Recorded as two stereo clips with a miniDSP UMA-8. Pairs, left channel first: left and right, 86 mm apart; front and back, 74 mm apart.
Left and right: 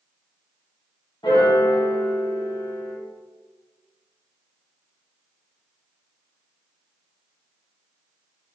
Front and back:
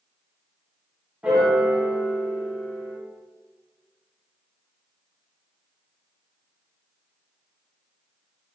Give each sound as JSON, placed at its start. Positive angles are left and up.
{"t": 1.2, "sound": "a piano", "azimuth_deg": 105, "distance_m": 1.0}